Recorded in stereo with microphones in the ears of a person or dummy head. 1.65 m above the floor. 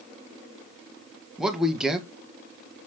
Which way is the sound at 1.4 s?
Centre (ahead or behind).